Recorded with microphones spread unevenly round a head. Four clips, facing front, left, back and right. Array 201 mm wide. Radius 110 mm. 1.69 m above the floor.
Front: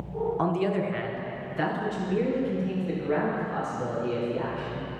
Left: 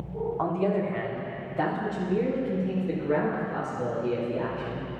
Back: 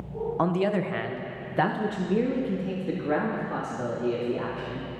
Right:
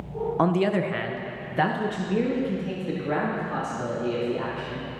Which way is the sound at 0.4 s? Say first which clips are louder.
Right 4 dB, back 3 dB; 80° right.